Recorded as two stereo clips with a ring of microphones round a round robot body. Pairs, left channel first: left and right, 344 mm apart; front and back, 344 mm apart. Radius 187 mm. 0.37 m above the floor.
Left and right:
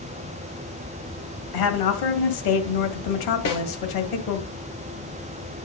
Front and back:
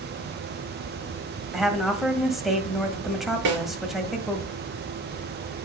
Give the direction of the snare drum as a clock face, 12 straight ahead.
7 o'clock.